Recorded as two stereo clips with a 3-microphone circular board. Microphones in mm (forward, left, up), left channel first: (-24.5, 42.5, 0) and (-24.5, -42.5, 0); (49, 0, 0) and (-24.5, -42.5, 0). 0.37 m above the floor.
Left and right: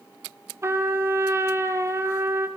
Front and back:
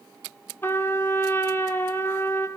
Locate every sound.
0.6 s a trumpet: 35° right, 2 m